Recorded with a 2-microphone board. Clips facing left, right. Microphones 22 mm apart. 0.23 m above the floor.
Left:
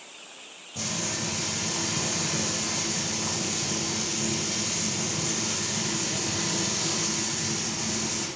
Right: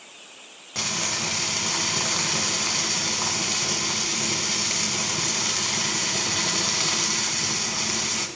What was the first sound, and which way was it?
Frying, 55° right (ahead or behind).